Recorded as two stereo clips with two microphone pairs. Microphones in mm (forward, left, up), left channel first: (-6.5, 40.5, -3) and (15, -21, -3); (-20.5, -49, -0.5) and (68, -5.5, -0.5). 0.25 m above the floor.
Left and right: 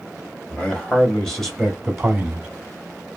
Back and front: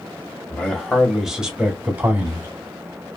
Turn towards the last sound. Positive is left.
turn(degrees=0)